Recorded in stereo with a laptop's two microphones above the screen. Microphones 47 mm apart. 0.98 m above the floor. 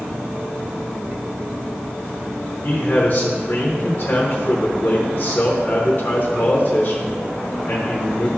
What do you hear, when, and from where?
2.6 s a man speaking: 45° left (ahead or behind), 0.9 m